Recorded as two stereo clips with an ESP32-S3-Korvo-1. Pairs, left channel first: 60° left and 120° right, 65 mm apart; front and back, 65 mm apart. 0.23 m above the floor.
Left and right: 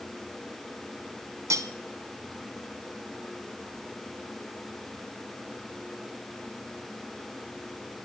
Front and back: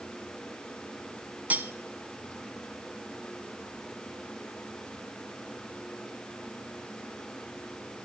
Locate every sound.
1.5 s cutlery clinking: 120° right, 1.1 m